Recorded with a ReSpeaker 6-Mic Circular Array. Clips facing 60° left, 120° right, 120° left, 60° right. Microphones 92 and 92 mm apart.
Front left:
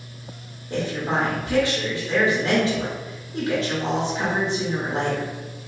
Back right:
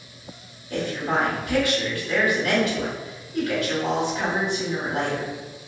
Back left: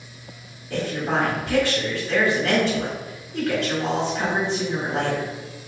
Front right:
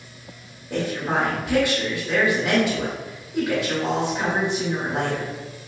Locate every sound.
0.7 s a woman speaking: 10° left, 1.9 m